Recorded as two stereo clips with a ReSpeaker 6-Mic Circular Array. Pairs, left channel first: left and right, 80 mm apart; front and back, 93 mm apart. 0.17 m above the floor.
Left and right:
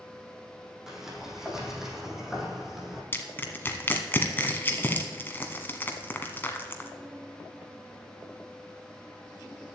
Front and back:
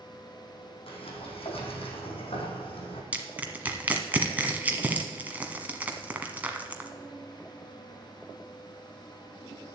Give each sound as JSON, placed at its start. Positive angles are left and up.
{"t": 0.9, "sound": "a sliding door", "azimuth_deg": -5, "distance_m": 2.5}
{"t": 3.1, "sound": "crushing", "azimuth_deg": 125, "distance_m": 1.4}